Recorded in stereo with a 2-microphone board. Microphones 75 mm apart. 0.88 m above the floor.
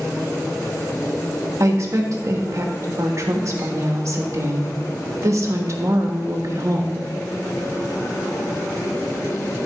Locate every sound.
1.6 s a woman speaking: 45° right (ahead or behind), 1.3 m